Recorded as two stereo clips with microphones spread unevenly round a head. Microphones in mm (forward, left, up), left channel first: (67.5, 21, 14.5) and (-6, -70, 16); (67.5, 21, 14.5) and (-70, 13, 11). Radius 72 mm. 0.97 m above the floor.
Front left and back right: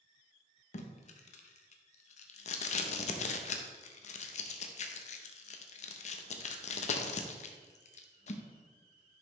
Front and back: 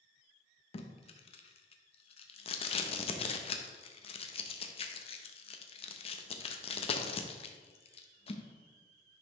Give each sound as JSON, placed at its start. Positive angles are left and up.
{"t": 0.7, "sound": "tape being pulled", "azimuth_deg": 45, "distance_m": 0.7}